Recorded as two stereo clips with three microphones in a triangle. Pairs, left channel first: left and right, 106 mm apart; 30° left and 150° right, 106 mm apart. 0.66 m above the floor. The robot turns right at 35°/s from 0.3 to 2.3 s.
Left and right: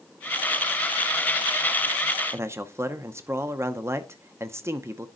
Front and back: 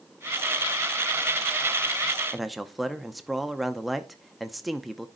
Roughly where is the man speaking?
Ahead right.